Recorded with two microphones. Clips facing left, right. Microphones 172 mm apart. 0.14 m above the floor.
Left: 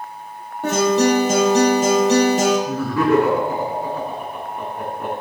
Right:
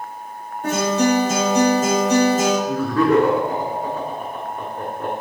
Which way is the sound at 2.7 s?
10° left (ahead or behind).